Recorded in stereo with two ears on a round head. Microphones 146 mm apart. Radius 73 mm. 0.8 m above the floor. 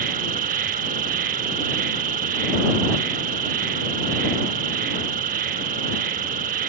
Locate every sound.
0.0 s an insect: 50° right (ahead or behind)